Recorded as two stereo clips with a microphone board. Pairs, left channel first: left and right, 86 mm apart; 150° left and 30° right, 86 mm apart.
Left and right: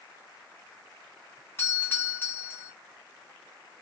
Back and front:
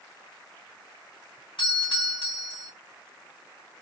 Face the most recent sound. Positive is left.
turn(degrees=155)